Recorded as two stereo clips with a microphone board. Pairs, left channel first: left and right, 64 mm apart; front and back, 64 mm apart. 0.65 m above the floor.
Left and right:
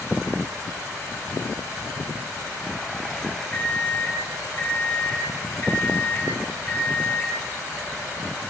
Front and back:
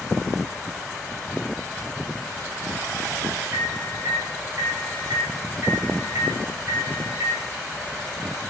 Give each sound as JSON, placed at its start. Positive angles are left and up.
{"t": 3.5, "sound": "a microwave", "azimuth_deg": 145, "distance_m": 4.0}